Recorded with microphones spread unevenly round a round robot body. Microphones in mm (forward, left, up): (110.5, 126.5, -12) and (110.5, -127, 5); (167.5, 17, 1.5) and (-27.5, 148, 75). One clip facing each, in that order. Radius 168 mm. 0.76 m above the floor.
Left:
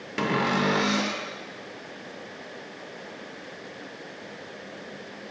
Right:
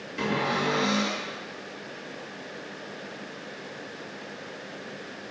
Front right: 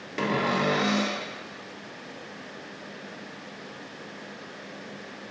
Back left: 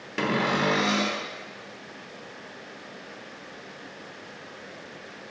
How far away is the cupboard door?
About 0.8 m.